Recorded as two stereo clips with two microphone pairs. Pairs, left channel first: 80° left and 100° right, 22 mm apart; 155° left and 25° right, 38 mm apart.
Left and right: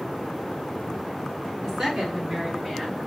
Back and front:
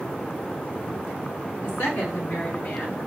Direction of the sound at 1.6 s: 170° left.